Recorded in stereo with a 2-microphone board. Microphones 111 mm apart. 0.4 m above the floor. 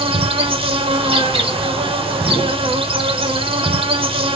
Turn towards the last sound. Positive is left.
turn(degrees=-55)  # may be behind; listen again after turning